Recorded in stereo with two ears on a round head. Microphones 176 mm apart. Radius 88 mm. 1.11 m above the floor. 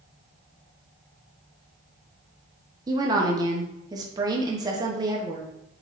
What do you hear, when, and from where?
2.9 s a woman speaking: 20° right (ahead or behind), 0.7 m